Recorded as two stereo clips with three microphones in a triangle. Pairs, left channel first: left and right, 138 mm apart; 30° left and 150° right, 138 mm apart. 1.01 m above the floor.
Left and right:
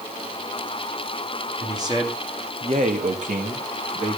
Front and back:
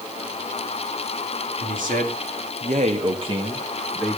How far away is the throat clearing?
I don't hear throat clearing.